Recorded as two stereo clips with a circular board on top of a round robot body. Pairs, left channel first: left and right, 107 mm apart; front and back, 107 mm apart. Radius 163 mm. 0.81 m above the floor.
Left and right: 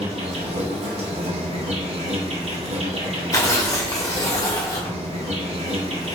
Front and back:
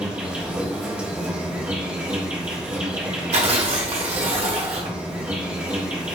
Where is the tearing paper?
150° left, 0.8 m.